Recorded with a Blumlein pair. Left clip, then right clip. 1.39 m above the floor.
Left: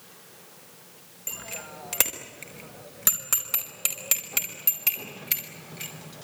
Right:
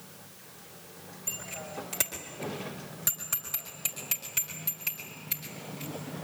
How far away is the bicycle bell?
About 4 m.